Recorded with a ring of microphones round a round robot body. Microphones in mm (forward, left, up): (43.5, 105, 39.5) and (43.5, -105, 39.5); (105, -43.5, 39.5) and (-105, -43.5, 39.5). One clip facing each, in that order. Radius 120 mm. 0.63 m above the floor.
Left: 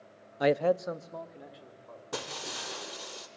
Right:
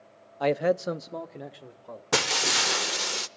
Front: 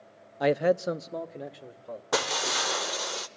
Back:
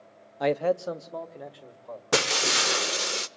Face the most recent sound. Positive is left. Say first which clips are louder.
# right 10 dB, back 3 dB
turn(degrees=-120)